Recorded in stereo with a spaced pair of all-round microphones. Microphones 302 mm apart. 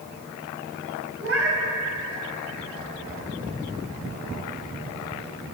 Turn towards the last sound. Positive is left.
turn(degrees=-45)  # may be behind; listen again after turning